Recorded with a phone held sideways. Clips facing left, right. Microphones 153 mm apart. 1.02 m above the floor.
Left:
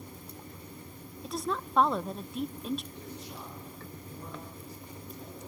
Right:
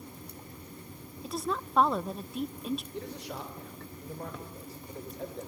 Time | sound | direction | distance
1.2 | a woman speaking | centre (ahead or behind) | 0.5 m
2.9 | a man speaking | 85° right | 4 m